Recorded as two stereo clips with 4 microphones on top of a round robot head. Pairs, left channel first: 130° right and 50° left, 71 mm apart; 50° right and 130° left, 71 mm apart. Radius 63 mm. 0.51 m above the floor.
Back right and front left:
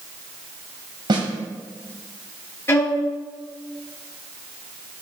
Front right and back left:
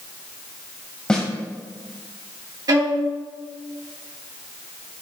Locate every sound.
1.1 s a snare drum: 30° left, 1.7 m
2.7 s a violin: 170° left, 2.5 m